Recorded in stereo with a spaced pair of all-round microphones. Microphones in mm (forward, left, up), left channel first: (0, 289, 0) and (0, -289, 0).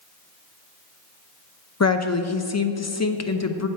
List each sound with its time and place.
1.8 s a woman speaking: 30° left (ahead or behind), 0.6 m